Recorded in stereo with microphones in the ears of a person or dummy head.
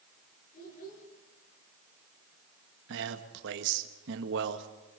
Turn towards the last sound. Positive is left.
turn(degrees=-70)  # may be behind; listen again after turning